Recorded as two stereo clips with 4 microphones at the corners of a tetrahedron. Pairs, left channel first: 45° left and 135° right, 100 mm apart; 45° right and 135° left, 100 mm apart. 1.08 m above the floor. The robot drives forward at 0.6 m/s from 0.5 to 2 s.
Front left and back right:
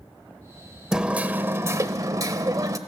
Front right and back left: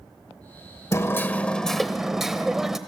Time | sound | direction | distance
0.9 | hammering | 60° right | 0.9 m